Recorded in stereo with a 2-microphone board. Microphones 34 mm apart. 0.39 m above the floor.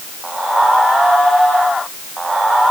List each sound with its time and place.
Only background noise.